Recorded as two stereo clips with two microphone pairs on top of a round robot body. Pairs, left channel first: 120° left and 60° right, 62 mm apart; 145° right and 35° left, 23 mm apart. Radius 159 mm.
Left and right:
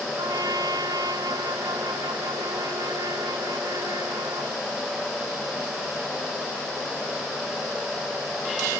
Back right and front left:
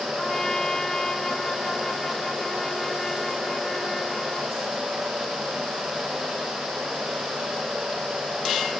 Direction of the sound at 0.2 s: 75° right.